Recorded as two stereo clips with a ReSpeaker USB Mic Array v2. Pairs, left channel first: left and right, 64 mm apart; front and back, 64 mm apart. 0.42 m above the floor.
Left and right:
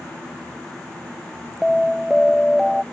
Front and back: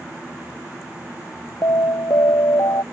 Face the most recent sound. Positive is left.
turn(degrees=0)